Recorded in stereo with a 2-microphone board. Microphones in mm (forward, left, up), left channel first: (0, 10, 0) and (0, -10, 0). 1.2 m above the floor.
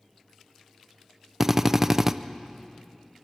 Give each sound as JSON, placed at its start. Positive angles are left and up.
{"t": 1.4, "sound": "a drill", "side_deg": -15, "distance_m": 0.6}